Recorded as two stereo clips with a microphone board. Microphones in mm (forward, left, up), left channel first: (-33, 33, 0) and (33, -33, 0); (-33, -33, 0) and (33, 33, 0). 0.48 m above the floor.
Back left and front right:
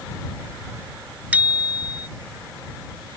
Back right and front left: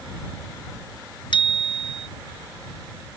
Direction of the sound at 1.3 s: 115° right.